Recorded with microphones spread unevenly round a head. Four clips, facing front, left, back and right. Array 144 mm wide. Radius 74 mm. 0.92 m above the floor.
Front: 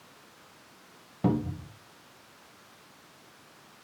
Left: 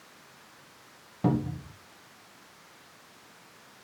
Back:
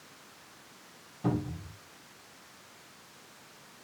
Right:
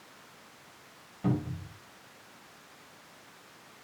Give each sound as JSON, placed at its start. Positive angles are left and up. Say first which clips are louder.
{"t": 1.2, "sound": "a cupboard door", "louder": "left 4 dB, front 4 dB", "azimuth_deg": 40, "distance_m": 1.4}